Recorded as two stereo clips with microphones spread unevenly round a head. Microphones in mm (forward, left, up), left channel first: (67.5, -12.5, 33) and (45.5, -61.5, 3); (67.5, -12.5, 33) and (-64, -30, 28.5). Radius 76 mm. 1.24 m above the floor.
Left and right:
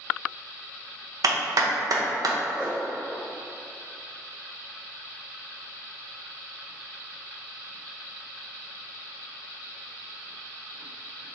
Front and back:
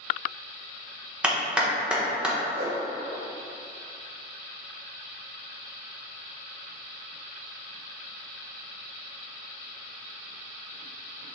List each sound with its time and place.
1.2 s a clap: 90° right, 0.6 m
2.5 s a whoosh: 155° left, 0.6 m